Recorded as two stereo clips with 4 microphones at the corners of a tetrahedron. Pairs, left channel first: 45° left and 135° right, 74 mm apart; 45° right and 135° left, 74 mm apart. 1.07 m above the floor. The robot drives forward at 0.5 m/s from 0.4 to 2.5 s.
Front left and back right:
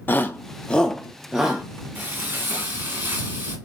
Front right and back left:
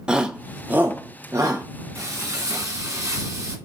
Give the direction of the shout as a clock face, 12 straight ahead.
10 o'clock.